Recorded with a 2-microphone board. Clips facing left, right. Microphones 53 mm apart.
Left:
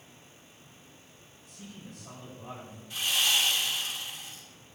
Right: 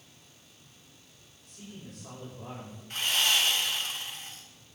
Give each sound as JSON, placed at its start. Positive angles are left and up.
{"t": 1.4, "sound": "a man speaking", "side_deg": -65, "distance_m": 7.5}
{"t": 2.9, "sound": "sawing", "side_deg": -55, "distance_m": 2.5}